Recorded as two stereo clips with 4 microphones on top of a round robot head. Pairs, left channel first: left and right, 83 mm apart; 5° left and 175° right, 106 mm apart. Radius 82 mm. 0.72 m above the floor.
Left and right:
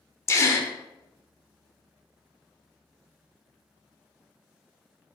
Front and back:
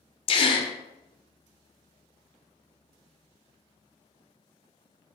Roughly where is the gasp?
Ahead left.